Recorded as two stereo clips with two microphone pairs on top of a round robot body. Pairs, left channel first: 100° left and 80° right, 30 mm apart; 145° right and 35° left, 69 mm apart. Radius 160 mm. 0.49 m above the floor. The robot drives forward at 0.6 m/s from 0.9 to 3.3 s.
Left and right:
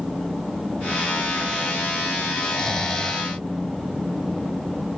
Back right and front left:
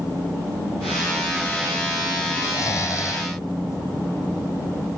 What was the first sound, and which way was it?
Snoring, 175° left.